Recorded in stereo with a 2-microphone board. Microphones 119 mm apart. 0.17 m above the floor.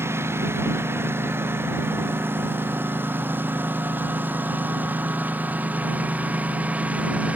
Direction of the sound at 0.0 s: 20° right (ahead or behind).